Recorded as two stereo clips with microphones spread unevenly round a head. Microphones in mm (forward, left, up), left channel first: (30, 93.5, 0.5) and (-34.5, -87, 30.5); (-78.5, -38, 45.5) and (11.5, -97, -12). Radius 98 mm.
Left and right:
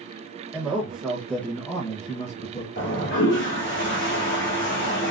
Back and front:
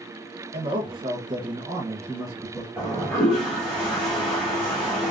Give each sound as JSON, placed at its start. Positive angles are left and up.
{"t": 0.5, "sound": "a man speaking", "azimuth_deg": -25, "distance_m": 1.3}
{"t": 2.8, "sound": "a toilet flushing", "azimuth_deg": 55, "distance_m": 1.6}